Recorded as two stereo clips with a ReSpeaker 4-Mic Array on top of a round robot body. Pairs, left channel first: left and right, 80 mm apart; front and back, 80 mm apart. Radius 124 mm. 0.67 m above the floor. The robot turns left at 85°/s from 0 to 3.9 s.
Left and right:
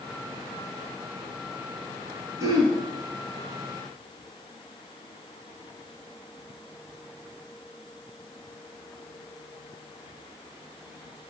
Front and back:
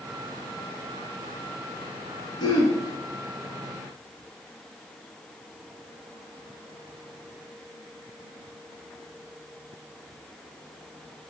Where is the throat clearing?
35° right, 1.7 m; by 2.8 s 65° right, 1.7 m.